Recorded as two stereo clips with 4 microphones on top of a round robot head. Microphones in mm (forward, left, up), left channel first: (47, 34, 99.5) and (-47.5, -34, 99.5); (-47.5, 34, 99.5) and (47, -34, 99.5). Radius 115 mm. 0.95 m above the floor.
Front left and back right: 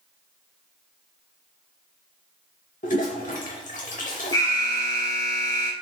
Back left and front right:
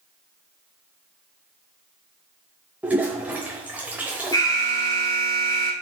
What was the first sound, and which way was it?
A toilet flushing, 40° left.